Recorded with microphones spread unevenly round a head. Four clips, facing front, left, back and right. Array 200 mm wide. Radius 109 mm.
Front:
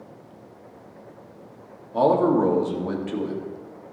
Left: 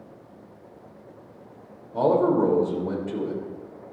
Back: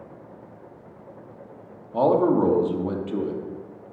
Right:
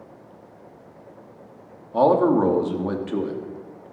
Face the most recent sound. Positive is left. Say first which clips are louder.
# right 3 dB, even
turn(degrees=-90)